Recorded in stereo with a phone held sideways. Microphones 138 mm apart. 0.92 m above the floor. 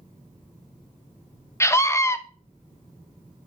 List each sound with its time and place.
1.6 s a scream: 20° left (ahead or behind), 0.6 m